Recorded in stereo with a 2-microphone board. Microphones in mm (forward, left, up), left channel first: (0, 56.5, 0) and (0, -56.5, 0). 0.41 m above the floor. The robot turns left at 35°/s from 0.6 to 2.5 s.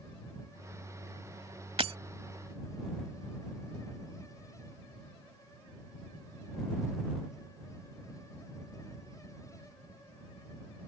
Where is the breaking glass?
60° right (ahead or behind); by 2.0 s 65° right (ahead or behind).